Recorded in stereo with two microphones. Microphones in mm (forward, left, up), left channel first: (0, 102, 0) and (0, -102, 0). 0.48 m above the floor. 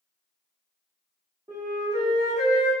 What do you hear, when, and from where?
1.5 s a flute: 35° right (ahead or behind), 1.1 m